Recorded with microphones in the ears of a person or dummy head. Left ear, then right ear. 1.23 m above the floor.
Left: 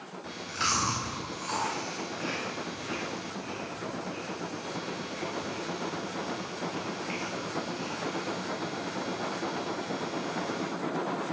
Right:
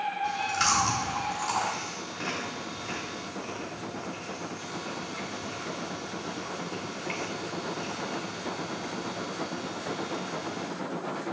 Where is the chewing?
10° right (ahead or behind), 2 m.